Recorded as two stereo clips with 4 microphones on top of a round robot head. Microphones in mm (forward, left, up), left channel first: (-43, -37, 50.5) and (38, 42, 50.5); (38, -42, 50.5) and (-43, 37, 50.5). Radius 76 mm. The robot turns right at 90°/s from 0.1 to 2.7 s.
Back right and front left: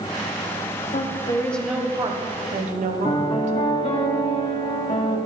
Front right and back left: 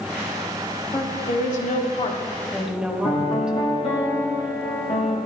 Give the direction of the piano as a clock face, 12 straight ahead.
3 o'clock.